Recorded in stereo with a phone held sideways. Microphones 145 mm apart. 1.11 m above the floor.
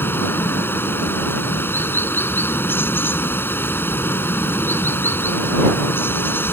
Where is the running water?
15° left (ahead or behind).